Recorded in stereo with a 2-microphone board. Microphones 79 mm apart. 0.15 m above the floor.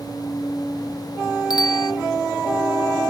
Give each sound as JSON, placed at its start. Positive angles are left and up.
{"t": 1.5, "sound": "a bicycle bell", "side_deg": 70}